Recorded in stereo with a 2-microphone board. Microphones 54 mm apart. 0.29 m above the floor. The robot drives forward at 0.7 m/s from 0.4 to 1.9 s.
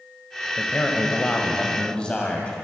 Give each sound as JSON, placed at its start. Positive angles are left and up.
{"t": 0.6, "sound": "a man speaking", "side_deg": 25, "distance_m": 1.1}